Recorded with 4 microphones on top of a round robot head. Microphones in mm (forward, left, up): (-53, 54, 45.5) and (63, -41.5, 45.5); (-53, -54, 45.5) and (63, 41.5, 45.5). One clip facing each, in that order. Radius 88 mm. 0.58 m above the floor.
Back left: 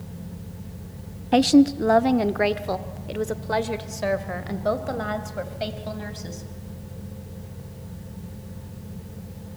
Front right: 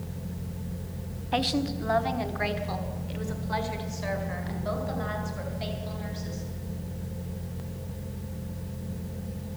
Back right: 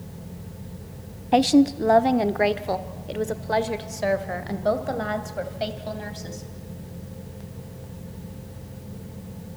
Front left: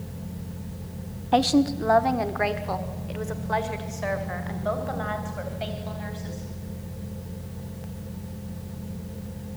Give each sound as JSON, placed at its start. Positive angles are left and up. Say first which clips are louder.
{"t": 1.3, "sound": "a woman speaking", "louder": "back left 12 dB, back right 3 dB", "azimuth_deg": 150, "distance_m": 0.8}